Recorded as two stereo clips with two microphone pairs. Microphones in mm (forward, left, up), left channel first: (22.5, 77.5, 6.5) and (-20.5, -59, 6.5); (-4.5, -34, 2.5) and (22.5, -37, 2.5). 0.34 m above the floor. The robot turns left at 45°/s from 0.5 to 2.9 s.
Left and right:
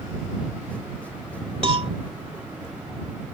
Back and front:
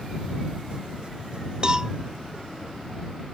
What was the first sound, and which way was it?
A cowbell, 60° right.